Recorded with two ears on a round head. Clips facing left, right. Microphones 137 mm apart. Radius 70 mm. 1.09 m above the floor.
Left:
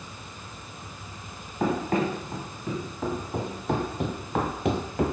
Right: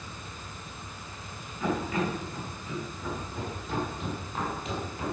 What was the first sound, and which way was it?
Running footsteps, 40° left (ahead or behind).